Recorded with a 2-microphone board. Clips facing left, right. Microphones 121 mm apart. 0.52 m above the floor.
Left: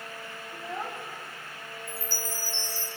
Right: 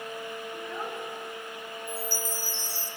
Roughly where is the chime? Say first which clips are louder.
Right 4 dB; centre.